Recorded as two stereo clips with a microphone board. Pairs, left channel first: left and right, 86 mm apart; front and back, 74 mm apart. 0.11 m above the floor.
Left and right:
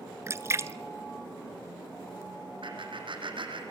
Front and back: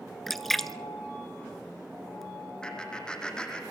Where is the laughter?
80° right, 4.5 m.